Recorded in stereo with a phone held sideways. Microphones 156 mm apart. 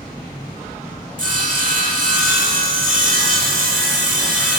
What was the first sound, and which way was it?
Sawing, 60° right (ahead or behind).